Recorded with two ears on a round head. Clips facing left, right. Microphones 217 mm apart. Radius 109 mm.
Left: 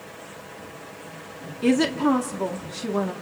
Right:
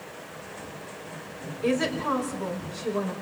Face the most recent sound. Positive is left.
turn(degrees=75)  # may be behind; listen again after turning